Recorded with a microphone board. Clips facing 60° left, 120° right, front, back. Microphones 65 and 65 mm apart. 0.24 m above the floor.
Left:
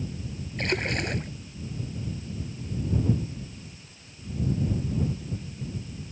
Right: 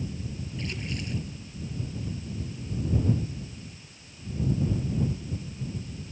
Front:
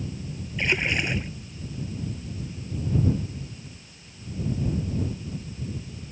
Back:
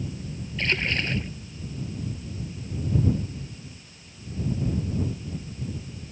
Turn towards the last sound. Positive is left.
turn(degrees=75)